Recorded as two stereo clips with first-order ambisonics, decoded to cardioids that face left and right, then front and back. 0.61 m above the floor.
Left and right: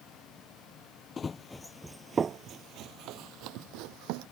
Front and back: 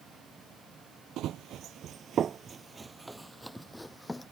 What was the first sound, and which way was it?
Running footsteps, 155° left.